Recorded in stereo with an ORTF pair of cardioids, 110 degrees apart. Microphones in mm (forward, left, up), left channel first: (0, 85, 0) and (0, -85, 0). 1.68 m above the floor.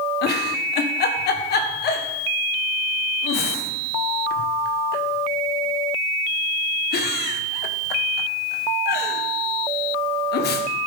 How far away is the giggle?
About 1.4 m.